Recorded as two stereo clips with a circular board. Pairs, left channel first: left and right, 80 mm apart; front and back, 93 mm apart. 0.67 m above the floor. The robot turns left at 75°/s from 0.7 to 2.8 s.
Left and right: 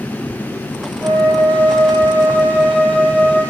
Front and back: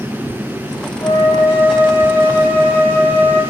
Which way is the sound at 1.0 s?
45° right.